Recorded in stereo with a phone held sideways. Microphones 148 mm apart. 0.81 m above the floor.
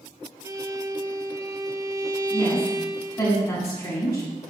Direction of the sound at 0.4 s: 20° right (ahead or behind).